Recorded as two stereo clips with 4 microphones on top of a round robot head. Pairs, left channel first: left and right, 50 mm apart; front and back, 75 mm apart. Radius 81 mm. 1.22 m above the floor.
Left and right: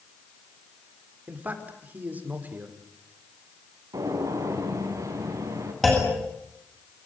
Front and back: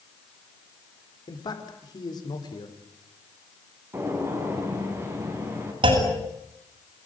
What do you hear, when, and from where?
1.3 s a man speaking: 35° right, 5 m
3.9 s a gunshot: 115° right, 5 m
5.8 s a clunk: 175° left, 8 m